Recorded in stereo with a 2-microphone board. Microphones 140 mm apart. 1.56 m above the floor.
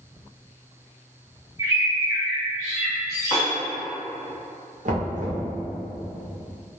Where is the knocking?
65° right (ahead or behind), 0.7 m.